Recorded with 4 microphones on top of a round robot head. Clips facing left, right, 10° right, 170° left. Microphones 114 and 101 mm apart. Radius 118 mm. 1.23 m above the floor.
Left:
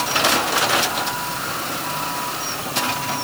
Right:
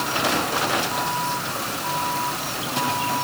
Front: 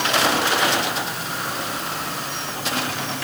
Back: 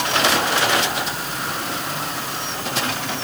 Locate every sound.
Only background noise.